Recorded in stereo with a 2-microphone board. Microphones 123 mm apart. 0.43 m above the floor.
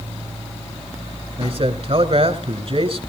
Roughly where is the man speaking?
Right.